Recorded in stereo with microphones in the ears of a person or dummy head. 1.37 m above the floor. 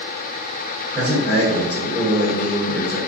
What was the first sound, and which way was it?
A man speaking, 10° left (ahead or behind).